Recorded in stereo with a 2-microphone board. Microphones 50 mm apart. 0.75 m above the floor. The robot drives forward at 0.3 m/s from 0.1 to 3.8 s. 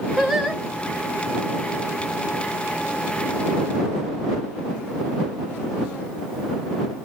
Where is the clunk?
No clunk in this recording.